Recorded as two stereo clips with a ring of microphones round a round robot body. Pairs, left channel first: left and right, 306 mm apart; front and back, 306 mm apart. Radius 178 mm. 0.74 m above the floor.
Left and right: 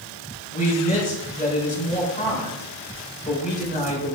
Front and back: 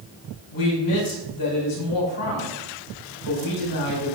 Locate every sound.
0.5 s a man speaking: 25° left, 5 m